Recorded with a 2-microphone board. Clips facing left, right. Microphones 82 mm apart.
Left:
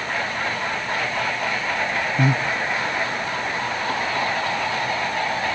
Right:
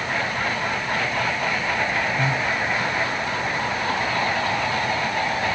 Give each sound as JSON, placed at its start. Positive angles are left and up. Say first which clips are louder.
{"t": 2.2, "sound": "breathing", "louder": "left 2 dB", "side_deg": 65, "distance_m": 1.1}